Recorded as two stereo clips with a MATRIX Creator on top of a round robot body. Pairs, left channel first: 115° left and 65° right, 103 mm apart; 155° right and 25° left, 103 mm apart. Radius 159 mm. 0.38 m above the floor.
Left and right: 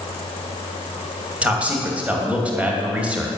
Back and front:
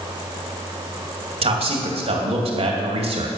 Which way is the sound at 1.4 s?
10° left.